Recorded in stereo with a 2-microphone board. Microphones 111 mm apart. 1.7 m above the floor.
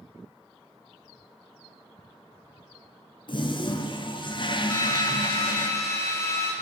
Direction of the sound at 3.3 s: 45° left (ahead or behind).